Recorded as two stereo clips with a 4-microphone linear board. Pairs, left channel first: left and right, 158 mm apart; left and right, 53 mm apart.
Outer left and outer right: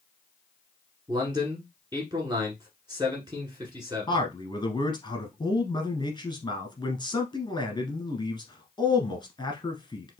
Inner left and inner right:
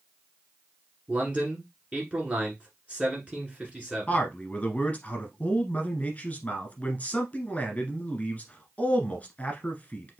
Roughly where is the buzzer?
No buzzer in this recording.